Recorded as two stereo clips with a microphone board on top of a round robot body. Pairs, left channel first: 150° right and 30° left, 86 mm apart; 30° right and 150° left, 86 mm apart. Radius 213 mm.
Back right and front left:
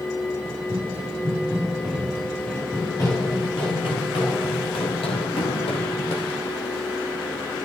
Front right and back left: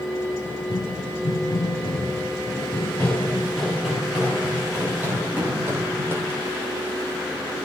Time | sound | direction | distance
0.5 | running footsteps | 20° right | 1.8 m